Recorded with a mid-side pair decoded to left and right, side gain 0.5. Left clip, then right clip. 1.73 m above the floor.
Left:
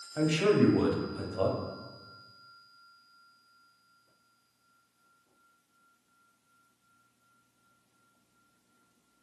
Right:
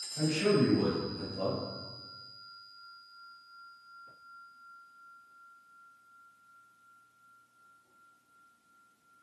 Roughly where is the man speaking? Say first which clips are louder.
Left 3 dB; ahead left.